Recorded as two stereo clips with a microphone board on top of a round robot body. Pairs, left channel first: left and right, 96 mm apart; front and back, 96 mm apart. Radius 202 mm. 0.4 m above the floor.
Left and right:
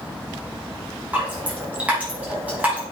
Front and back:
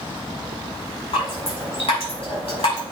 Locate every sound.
1.1 s dripping: 15° right, 6 m